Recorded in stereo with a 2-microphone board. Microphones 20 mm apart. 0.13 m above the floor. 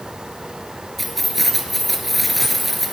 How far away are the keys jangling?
About 1.2 m.